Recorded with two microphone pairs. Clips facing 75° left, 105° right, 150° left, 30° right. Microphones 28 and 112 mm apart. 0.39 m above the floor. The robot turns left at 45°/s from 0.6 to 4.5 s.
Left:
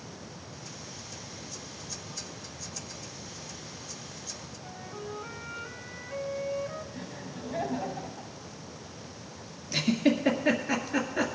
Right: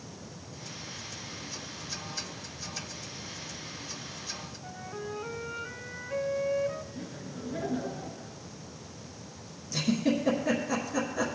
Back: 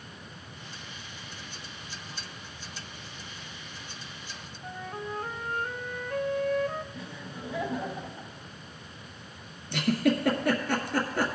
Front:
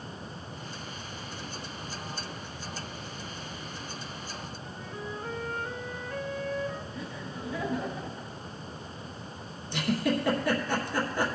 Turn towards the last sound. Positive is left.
turn(degrees=125)